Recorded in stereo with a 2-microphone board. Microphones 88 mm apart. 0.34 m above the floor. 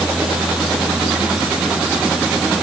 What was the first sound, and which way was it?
Only background noise.